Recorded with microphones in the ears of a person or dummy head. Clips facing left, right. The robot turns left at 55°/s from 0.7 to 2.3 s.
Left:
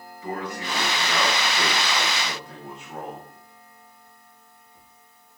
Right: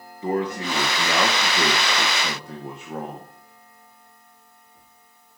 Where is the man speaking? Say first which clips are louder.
Right 7 dB; 30° right, 1.0 m; by 3.3 s 120° right, 1.0 m.